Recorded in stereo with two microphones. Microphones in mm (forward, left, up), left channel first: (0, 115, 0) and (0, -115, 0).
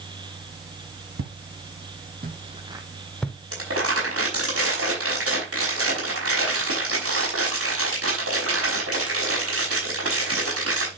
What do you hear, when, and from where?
1.2 s footsteps: 70° right (ahead or behind), 2.0 m; by 3.4 s 5° left (ahead or behind), 1.9 m
3.5 s crumpling: 80° right, 5 m